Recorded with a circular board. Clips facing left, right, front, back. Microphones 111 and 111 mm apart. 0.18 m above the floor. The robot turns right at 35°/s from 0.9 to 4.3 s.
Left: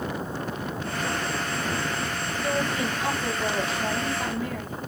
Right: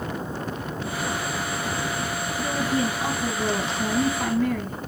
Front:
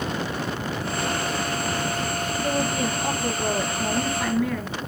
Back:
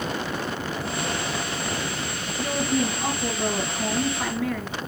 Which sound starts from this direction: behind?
A woman speaking, at 2.4 s.